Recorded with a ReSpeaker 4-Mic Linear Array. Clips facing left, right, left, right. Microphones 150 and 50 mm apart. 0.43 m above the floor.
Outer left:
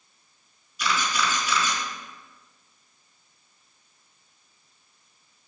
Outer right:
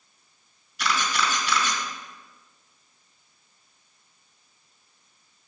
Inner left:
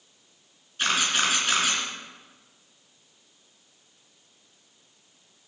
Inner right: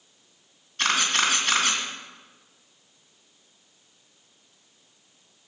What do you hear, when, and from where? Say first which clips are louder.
0.8 s a camera shutter: even, inner right 1 dB; 75° right (ahead or behind), 3 m